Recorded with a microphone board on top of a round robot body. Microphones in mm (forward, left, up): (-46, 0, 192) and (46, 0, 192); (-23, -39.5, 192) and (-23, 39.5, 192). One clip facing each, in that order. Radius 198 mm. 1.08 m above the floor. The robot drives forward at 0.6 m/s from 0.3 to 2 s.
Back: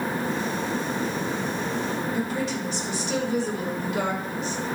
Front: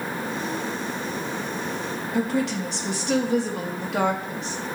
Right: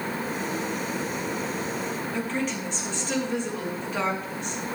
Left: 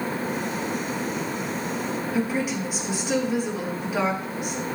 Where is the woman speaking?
10° left, 3 m.